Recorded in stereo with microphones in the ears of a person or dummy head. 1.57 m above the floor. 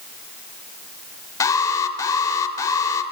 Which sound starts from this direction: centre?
An alarm, at 1.4 s.